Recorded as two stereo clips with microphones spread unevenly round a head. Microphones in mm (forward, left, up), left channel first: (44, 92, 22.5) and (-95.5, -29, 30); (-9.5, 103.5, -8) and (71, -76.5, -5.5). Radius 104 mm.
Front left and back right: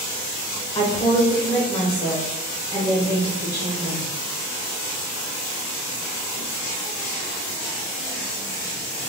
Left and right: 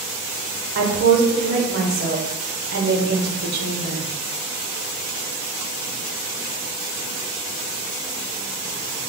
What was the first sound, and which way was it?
A woman speaking, 35° right.